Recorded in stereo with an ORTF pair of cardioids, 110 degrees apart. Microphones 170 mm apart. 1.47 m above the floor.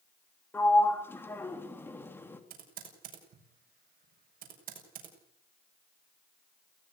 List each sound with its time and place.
0.5 s a sliding door: 10° left, 3 m
2.5 s typing on a keyboard: 60° right, 7 m